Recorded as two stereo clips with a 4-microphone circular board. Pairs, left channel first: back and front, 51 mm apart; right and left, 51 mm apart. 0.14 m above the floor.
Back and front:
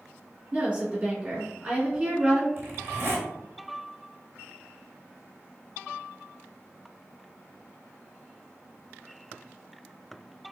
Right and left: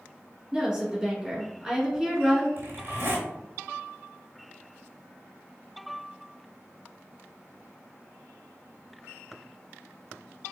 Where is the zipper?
45° left, 0.9 m.